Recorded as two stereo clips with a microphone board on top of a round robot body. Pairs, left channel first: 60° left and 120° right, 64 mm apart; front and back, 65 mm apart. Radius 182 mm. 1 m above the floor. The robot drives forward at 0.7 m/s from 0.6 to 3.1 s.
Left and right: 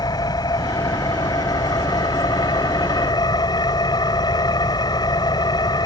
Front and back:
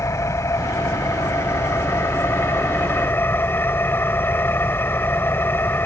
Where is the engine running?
45° left; by 5.9 s 60° left.